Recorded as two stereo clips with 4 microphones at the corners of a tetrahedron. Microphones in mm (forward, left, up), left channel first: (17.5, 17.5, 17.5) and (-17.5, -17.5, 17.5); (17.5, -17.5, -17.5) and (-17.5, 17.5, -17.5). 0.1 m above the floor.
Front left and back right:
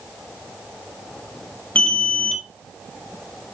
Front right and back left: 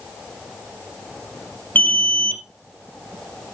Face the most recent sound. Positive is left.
turn(degrees=-10)